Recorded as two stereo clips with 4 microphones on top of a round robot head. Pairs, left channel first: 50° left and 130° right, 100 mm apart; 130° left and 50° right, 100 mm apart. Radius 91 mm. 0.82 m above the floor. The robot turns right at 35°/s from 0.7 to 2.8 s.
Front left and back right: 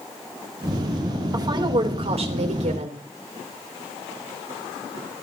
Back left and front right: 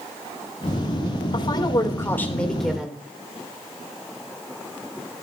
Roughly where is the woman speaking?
Behind.